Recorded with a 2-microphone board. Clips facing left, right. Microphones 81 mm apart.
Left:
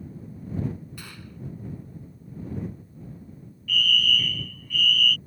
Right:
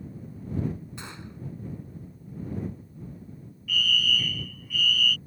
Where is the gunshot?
25° right (ahead or behind).